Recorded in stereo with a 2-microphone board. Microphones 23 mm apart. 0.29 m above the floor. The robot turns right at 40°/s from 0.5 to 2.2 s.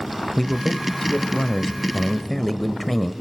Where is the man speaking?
20° left (ahead or behind), 0.9 m; by 3.1 s 10° left (ahead or behind), 0.9 m.